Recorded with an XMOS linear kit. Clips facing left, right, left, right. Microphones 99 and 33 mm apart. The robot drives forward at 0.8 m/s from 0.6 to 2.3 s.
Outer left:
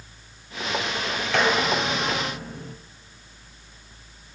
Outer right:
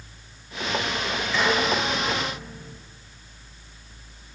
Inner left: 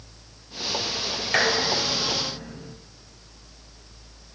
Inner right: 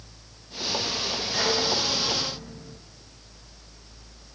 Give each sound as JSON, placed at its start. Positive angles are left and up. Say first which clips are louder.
{"t": 1.3, "sound": "dishes clattering", "louder": "outer left 1 dB, inner left 4 dB", "side_deg": 65, "distance_m": 2.0}